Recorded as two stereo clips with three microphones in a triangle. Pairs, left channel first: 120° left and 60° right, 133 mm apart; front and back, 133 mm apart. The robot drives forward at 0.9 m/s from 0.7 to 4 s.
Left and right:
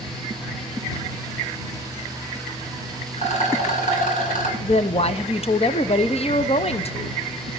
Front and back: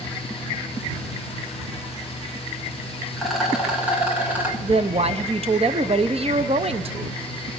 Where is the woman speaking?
150° left, 0.6 m.